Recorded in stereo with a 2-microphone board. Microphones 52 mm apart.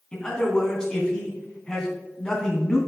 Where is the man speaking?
15° left (ahead or behind), 2.5 m.